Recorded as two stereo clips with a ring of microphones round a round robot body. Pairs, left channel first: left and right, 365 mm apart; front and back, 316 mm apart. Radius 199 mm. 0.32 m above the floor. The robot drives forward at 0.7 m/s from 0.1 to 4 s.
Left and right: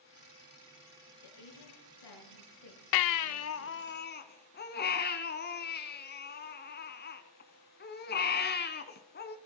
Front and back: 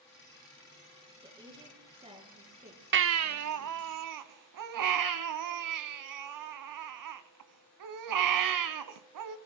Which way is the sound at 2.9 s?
120° left.